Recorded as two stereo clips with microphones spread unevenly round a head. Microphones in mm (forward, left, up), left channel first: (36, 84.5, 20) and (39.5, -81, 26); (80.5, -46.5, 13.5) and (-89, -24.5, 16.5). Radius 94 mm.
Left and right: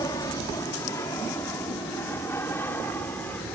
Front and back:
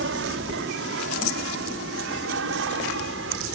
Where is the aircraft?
165° left; by 3.6 s 175° left.